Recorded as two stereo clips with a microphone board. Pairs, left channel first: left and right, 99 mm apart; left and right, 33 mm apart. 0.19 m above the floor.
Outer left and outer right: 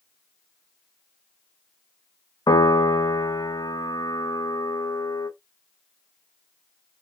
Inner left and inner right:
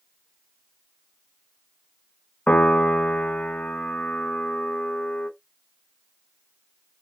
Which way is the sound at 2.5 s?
45° left (ahead or behind).